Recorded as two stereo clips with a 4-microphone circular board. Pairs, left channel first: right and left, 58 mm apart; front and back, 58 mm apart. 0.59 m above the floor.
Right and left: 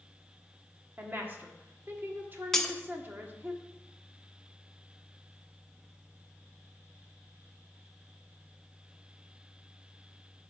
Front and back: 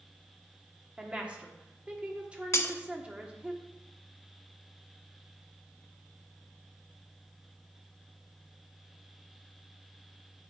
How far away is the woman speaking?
About 1.2 m.